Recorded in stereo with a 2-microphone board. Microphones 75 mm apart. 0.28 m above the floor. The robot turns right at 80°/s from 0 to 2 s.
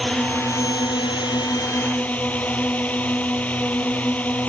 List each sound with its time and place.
0.0 s a drone: straight ahead; by 4.5 s 160° left